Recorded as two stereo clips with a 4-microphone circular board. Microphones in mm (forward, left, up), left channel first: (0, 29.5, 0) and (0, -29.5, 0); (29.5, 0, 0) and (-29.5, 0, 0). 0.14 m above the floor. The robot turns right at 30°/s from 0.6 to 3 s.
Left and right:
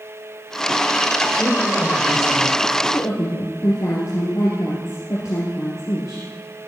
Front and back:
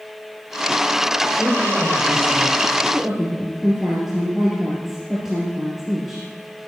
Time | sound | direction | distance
1.4 | a woman speaking | 45° left | 9.5 m
2.9 | a woman speaking | 90° left | 3 m